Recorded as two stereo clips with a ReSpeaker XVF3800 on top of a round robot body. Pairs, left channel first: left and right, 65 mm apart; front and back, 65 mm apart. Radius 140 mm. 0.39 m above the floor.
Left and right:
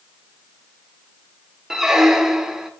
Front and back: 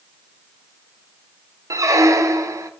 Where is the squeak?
170° right, 1.0 m.